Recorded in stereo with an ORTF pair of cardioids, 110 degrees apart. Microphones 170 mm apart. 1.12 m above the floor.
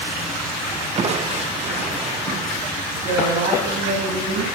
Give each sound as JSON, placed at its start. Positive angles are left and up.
{"t": 1.0, "sound": "crushing", "azimuth_deg": -40, "distance_m": 0.7}
{"t": 2.9, "sound": "a woman speaking", "azimuth_deg": -60, "distance_m": 3.0}